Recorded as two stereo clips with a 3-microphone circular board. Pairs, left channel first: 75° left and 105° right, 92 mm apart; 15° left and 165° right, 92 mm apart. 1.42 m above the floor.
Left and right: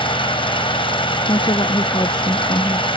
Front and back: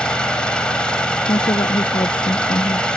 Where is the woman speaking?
40° left.